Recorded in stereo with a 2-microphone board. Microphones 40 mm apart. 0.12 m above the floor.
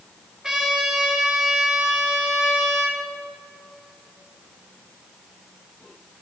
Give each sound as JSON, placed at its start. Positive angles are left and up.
{"t": 0.4, "sound": "a trumpet", "side_deg": -15, "distance_m": 1.3}